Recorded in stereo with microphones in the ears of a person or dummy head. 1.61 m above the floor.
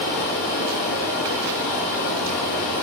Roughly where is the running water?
Left.